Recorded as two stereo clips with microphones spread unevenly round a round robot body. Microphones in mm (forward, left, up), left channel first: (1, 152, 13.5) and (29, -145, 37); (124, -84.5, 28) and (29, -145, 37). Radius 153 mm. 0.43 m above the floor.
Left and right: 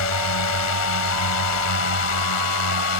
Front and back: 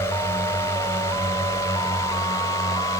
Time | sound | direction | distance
0.0 | a drone | 100° left | ?